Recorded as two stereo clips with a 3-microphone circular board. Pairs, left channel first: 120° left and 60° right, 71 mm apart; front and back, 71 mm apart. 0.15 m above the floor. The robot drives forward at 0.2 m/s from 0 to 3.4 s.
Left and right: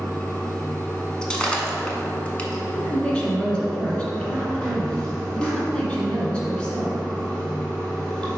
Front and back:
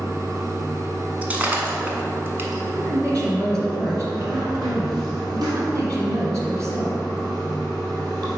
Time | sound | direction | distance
0.0 | running water | 160° right | 1.5 m
1.2 | breaking glass | 175° left | 0.9 m
2.7 | a woman speaking | 170° right | 1.7 m